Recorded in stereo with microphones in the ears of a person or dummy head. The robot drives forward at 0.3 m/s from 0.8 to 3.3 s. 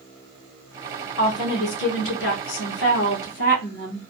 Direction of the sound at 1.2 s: 75° left (ahead or behind).